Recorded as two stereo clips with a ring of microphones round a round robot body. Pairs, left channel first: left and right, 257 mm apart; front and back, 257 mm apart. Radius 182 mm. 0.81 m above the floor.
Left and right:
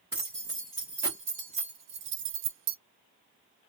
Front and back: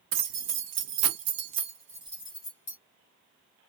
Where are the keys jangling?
175° left, 1.2 m; by 2.8 s 60° right, 0.6 m.